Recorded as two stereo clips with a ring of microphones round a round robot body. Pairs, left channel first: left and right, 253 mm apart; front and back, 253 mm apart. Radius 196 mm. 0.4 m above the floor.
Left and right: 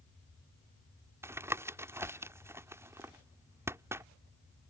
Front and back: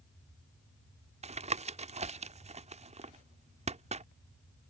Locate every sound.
1.2 s tapping: 160° right